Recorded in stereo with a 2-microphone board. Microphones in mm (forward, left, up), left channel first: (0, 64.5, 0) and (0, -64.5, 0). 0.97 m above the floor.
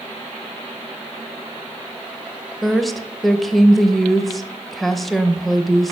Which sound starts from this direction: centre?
A woman speaking, at 2.6 s.